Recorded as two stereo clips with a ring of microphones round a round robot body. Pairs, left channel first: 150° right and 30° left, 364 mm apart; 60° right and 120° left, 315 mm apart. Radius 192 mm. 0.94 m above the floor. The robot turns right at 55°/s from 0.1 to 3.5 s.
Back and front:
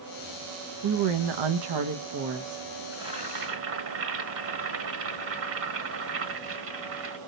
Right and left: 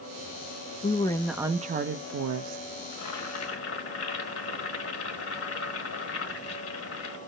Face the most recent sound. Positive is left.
turn(degrees=-20)